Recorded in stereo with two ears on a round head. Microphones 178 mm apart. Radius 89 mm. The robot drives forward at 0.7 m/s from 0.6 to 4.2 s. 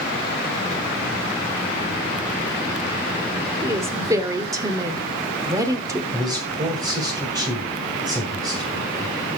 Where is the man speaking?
20° right (ahead or behind), 1.8 m.